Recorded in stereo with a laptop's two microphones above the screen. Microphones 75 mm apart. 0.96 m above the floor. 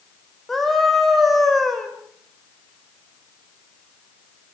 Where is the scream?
Centre (ahead or behind), 4.5 m.